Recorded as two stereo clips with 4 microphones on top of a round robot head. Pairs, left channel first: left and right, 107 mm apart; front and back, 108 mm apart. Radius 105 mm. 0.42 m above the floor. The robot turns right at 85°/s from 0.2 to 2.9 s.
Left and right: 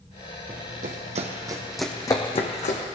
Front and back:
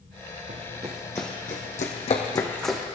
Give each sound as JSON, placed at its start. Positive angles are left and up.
{"t": 0.5, "sound": "running footsteps", "azimuth_deg": -150, "distance_m": 1.3}